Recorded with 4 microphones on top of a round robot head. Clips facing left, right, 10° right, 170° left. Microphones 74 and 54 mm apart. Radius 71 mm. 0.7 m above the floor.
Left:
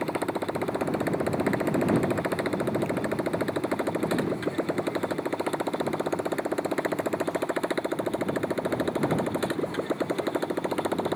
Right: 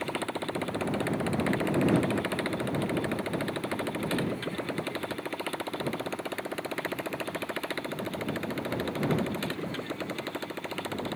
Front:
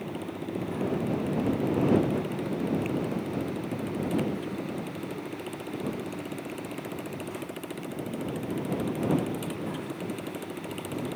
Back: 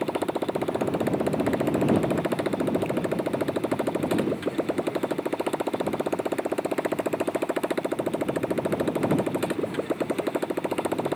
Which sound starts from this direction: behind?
A motorcycle, at 0.0 s.